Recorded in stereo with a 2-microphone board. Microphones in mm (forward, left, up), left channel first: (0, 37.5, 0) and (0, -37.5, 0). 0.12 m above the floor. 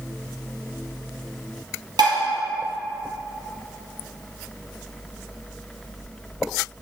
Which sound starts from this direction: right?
Dishes clattering, at 2.0 s.